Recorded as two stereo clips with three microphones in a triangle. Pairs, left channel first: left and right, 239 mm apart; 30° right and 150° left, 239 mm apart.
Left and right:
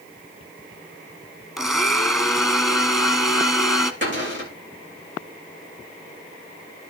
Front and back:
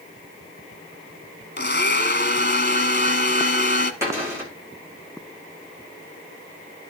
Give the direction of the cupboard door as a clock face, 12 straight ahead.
4 o'clock.